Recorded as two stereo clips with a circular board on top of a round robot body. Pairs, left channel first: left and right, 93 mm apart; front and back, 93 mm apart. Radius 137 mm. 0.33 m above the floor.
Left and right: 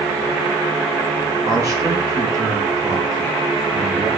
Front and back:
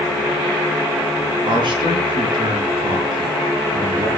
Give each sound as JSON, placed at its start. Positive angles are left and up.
{"t": 1.4, "sound": "a man speaking", "azimuth_deg": -145, "distance_m": 7.0}